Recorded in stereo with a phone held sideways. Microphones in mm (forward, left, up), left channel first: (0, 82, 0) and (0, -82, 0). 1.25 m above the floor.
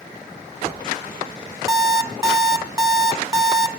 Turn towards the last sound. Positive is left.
turn(degrees=-25)  # may be behind; listen again after turning